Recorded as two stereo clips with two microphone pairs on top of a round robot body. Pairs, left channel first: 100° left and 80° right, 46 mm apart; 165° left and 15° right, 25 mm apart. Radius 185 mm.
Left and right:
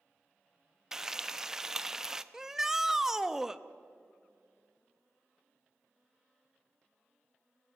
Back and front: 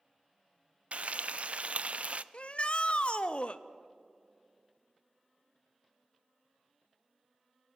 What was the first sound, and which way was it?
Frying, 5° left.